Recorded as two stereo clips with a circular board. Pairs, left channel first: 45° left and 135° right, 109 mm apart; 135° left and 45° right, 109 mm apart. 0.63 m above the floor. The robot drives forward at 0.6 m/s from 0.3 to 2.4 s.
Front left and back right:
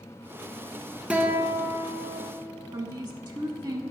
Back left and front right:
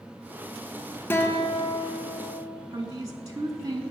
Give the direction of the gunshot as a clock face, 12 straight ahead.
No gunshot in this recording.